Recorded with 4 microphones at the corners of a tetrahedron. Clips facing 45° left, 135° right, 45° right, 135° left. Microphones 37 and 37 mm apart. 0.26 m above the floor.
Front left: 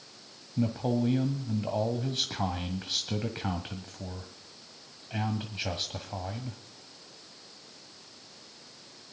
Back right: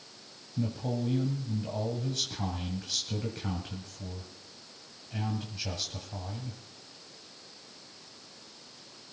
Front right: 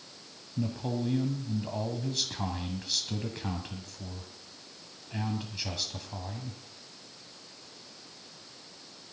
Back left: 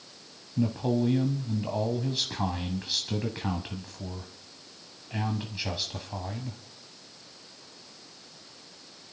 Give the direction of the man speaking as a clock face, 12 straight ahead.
10 o'clock.